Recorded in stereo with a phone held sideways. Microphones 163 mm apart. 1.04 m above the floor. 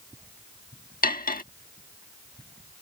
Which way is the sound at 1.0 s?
60° left (ahead or behind).